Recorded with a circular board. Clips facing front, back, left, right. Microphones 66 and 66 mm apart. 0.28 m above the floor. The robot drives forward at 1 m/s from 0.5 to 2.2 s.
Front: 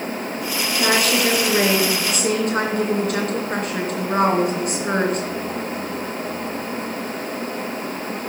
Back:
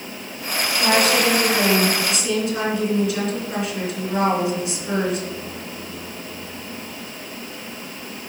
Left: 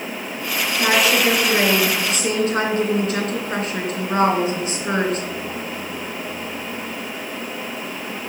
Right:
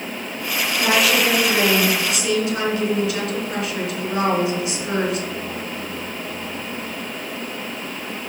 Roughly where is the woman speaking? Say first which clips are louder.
Back 1 dB, left 1 dB; ahead left.